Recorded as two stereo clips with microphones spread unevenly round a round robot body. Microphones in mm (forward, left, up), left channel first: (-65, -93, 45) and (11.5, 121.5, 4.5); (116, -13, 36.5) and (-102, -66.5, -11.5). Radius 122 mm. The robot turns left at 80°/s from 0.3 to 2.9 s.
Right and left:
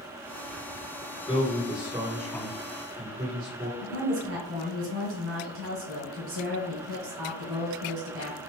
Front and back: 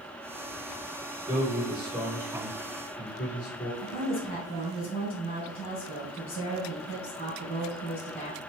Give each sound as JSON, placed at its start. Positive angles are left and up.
{"t": 1.3, "sound": "a man speaking", "azimuth_deg": -175, "distance_m": 1.8}
{"t": 3.8, "sound": "a woman speaking", "azimuth_deg": 85, "distance_m": 2.0}